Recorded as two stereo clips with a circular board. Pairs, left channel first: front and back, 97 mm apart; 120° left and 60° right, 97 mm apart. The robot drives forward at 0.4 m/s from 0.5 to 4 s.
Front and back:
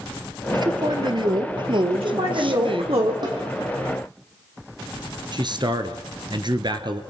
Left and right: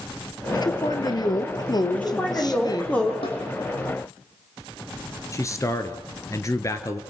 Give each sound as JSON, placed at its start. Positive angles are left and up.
{"t": 0.5, "sound": "a man speaking", "azimuth_deg": 150, "distance_m": 2.0}
{"t": 1.9, "sound": "a man speaking", "azimuth_deg": -165, "distance_m": 7.5}
{"t": 3.2, "sound": "a snare drum", "azimuth_deg": 140, "distance_m": 6.5}
{"t": 5.3, "sound": "a man speaking", "azimuth_deg": 170, "distance_m": 1.9}